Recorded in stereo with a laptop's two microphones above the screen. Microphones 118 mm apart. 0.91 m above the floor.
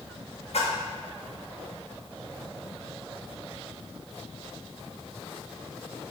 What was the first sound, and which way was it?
A splash, 70° left (ahead or behind).